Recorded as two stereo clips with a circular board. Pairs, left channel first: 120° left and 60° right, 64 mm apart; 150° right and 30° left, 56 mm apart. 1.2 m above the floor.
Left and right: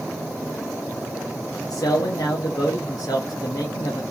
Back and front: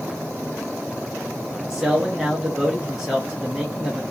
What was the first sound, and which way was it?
A man speaking, 110° left.